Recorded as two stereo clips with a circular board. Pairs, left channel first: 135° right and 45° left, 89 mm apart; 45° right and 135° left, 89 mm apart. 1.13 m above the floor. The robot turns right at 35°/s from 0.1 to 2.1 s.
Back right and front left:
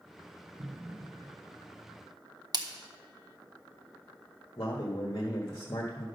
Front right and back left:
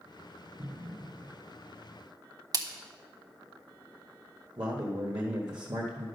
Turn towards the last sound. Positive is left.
turn(degrees=175)